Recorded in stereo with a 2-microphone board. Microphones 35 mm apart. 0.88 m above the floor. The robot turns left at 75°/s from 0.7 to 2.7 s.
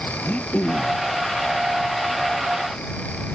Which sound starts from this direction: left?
Throat clearing, at 0.2 s.